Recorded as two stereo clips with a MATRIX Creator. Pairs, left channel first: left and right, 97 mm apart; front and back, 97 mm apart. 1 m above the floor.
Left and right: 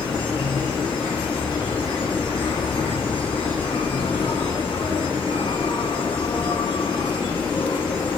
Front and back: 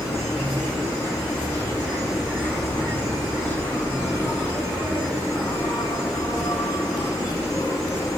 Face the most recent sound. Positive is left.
turn(degrees=55)